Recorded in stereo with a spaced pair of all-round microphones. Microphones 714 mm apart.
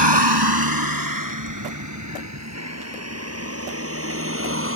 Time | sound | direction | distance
0.0 | a vehicle | 35° right (ahead or behind) | ?